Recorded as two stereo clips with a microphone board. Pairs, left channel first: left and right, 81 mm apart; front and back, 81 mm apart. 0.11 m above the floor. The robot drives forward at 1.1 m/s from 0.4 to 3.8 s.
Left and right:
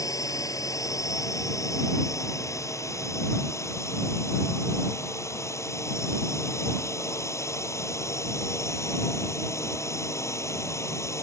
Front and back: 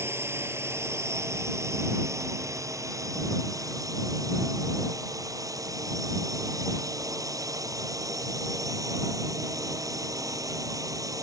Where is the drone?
125° left; by 11.2 s 140° left.